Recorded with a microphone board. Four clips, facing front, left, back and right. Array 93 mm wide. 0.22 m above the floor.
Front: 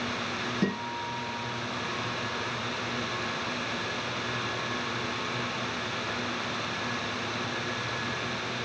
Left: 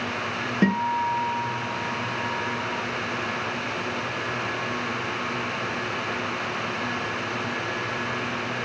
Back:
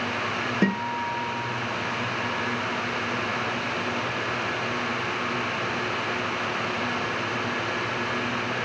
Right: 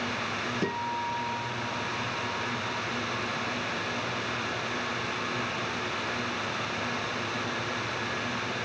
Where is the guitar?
130° left, 2.5 m.